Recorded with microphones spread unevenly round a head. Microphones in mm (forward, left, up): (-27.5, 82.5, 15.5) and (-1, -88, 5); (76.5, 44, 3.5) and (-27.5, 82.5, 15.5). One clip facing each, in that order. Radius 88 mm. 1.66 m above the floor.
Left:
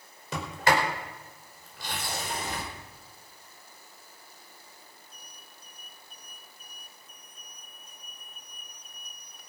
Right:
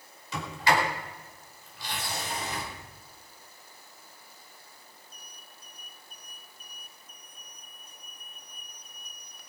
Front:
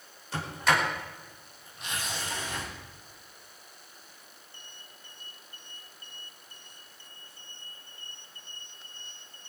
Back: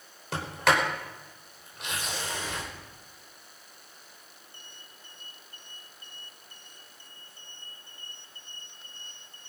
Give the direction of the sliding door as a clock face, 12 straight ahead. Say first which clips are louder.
Left 1 dB, back 2 dB; 7 o'clock.